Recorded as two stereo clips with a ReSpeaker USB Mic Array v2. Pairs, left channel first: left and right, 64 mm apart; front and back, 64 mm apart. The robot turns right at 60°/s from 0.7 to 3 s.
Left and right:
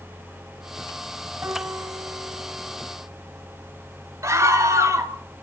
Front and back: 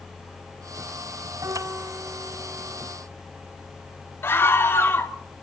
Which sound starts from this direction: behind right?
A piano, at 1.4 s.